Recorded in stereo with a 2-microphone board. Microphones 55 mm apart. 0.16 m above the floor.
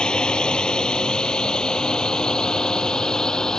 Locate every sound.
0.0 s a drone: 20° left (ahead or behind); by 3.6 s 15° left (ahead or behind)